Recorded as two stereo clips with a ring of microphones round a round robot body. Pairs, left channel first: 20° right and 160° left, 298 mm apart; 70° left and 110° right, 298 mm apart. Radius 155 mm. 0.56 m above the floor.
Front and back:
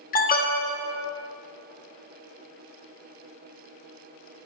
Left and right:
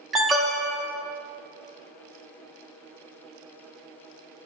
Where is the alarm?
25° right, 1.6 m.